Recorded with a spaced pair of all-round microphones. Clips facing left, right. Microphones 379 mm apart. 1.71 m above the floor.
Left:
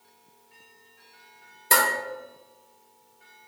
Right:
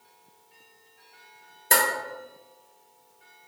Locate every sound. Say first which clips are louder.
1.7 s dishes clattering: even; 15° left (ahead or behind), 0.8 m